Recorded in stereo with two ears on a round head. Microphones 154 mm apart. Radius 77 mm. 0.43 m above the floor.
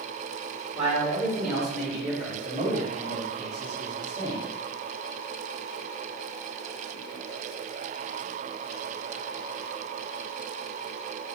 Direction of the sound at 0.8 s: 40° right (ahead or behind).